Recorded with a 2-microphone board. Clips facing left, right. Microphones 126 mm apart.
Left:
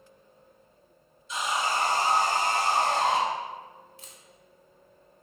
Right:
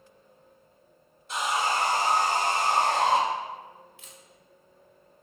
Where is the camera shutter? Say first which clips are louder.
Even; 40° left (ahead or behind), 0.8 m.